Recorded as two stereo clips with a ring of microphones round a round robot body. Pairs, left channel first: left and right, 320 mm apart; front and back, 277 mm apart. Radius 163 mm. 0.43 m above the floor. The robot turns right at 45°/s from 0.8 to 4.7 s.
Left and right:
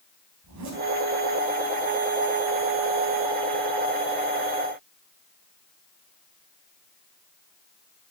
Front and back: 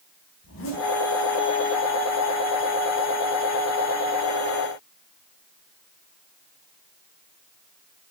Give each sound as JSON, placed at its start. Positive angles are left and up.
{"t": 0.4, "sound": "a zipper", "azimuth_deg": -50, "distance_m": 3.5}